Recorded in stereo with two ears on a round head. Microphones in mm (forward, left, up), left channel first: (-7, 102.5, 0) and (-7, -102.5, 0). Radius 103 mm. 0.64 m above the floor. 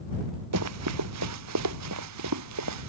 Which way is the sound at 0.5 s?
75° right (ahead or behind).